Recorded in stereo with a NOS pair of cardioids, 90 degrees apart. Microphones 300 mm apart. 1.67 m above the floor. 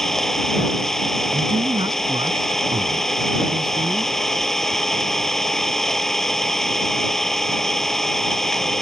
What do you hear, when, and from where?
0.0 s an engine running: straight ahead
1.3 s a man speaking: 15° right